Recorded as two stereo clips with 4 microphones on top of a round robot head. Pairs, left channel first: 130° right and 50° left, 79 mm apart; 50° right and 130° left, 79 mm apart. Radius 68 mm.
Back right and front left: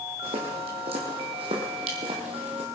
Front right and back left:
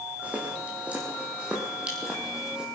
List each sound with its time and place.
0.2 s footsteps: 60° left, 4 m; by 2.7 s 55° left, 3 m